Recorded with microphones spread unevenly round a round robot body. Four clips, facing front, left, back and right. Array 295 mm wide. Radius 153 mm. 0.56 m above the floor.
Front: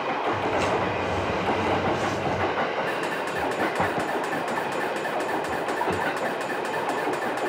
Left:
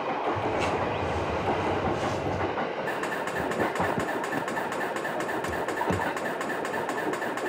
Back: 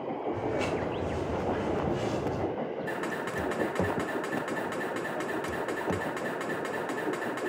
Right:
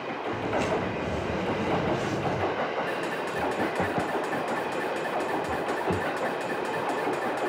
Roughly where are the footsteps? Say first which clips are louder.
Even, front 5 dB; right.